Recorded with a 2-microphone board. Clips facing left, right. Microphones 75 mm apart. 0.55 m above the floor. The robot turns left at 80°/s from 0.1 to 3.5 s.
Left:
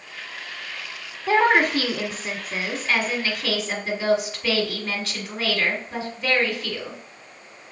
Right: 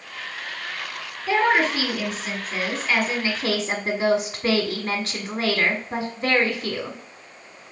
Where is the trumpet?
No trumpet in this recording.